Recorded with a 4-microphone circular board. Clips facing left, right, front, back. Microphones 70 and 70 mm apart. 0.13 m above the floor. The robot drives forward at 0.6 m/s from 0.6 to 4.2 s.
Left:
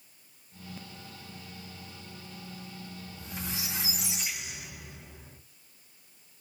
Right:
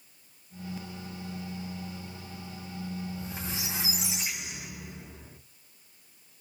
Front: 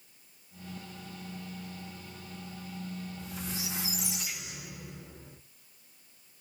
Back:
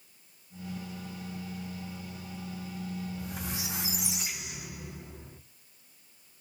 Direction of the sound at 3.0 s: 155° right.